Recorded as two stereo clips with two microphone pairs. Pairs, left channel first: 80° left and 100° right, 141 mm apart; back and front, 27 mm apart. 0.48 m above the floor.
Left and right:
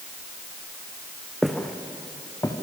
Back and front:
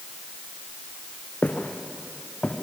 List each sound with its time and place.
1.4 s footsteps: 170° left, 2.5 m; by 2.5 s 140° left, 3.5 m